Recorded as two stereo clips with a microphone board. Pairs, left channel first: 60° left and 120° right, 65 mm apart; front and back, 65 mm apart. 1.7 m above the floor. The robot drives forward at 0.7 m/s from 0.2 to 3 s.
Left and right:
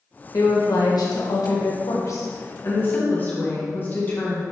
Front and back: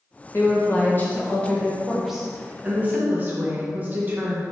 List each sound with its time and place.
0.3 s a woman speaking: 45° left, 1.7 m; by 4.4 s 120° left, 1.5 m